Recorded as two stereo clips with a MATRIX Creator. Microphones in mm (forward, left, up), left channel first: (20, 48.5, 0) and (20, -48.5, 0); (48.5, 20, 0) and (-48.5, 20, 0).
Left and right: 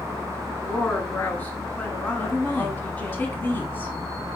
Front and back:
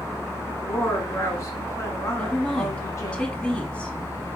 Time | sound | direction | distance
0.6 | a woman speaking | 25° left | 1.2 m
2.2 | a woman speaking | 55° left | 1.1 m